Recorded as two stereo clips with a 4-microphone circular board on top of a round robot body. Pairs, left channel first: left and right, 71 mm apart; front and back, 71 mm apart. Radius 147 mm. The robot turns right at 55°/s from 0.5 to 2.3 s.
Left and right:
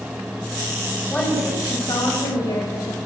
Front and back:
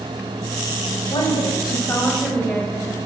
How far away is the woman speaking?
About 4.5 m.